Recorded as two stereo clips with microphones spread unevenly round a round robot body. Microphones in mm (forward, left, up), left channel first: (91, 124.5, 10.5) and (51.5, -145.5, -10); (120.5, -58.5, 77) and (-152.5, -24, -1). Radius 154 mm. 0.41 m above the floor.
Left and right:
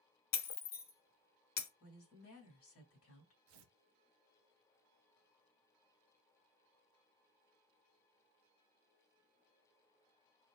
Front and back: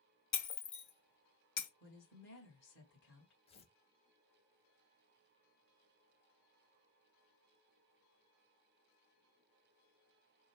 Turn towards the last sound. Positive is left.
turn(degrees=-80)